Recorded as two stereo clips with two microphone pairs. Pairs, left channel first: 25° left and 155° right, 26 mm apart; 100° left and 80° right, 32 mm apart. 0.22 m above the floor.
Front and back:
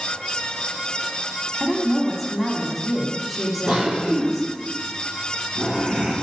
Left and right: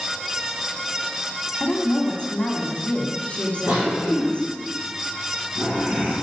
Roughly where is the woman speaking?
Left.